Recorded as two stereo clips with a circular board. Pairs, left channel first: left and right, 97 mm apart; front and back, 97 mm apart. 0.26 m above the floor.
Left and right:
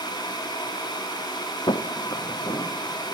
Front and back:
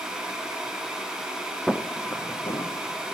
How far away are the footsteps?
About 0.6 m.